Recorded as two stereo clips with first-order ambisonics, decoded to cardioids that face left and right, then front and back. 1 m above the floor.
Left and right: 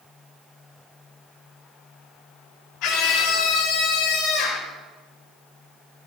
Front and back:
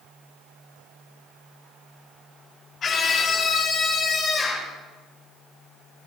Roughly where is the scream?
Ahead left.